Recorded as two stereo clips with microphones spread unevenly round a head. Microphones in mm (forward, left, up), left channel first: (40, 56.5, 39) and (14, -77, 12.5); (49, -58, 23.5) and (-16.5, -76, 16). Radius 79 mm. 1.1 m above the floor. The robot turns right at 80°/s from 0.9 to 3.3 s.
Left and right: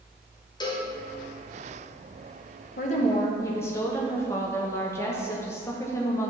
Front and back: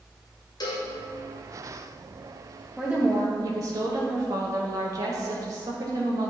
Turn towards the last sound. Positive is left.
turn(degrees=155)